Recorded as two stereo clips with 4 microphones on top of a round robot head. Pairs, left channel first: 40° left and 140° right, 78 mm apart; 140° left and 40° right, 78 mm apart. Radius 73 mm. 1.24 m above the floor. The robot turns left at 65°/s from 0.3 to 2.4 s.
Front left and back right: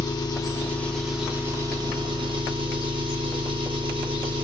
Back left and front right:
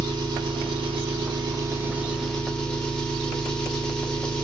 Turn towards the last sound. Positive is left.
turn(degrees=-140)